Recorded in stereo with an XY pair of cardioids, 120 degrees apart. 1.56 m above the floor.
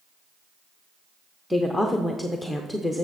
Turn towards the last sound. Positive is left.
turn(degrees=5)